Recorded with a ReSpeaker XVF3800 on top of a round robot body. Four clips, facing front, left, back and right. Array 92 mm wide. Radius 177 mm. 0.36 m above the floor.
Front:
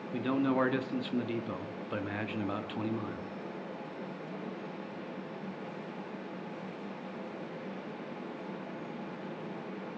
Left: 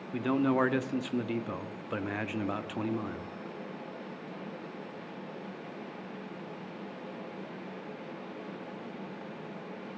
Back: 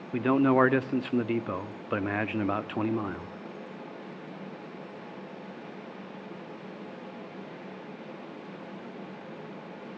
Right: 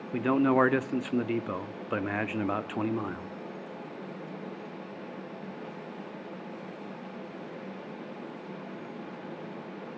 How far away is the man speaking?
About 1.3 m.